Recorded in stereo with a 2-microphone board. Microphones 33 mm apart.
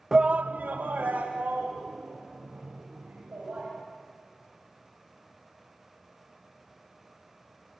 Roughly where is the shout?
Centre.